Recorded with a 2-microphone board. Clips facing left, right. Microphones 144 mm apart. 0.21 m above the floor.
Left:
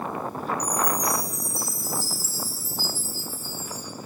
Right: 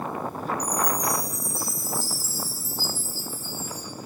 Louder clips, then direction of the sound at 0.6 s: Even; 30° right (ahead or behind).